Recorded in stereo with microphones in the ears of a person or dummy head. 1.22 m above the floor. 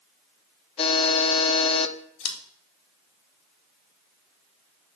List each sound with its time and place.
0.8 s a buzzer: 40° left (ahead or behind), 0.6 m
2.2 s scissors: 70° left (ahead or behind), 1.5 m